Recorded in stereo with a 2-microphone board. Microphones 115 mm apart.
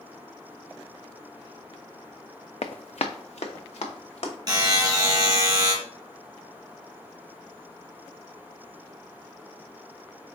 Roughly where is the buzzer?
Right.